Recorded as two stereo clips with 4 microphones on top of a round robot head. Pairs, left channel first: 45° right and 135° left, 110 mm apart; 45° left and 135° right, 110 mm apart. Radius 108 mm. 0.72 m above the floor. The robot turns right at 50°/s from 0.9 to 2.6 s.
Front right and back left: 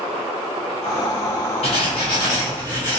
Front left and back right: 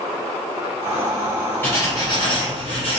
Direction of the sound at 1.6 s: 25° right.